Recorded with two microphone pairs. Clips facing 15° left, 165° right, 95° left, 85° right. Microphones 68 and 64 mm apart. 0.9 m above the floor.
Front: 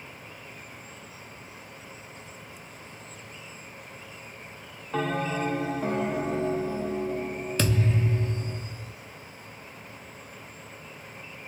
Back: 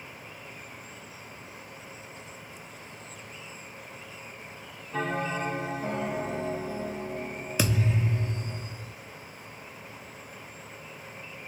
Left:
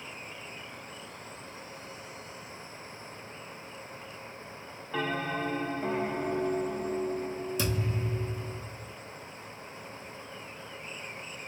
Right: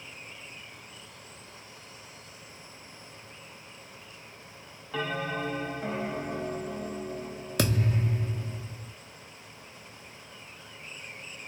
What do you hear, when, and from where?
4.9 s a bell: 10° left, 1.0 m
7.6 s a thud: 85° right, 0.5 m